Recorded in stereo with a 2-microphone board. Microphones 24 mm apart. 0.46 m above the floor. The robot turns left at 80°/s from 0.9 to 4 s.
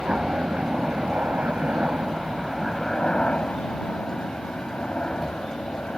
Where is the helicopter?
50° right; by 6.0 s 65° left.